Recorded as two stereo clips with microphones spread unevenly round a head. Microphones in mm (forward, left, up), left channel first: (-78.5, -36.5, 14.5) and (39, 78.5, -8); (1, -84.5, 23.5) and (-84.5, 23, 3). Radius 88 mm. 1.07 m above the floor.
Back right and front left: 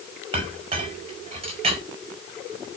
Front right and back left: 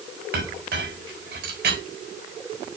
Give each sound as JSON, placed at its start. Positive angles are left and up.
{"t": 0.3, "sound": "a clink", "azimuth_deg": 100, "distance_m": 4.5}